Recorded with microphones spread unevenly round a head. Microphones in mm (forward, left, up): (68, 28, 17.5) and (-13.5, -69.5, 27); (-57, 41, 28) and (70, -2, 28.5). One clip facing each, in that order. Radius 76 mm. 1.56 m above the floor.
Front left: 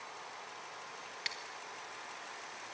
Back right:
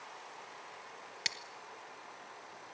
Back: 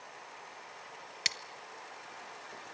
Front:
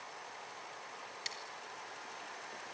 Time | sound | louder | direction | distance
1.2 | scissors | back right 2 dB, back 3 dB | straight behind | 1.4 m